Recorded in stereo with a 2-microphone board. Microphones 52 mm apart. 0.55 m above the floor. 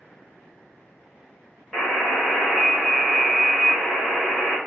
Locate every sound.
1.7 s a buzzer: 5° left (ahead or behind), 1.4 m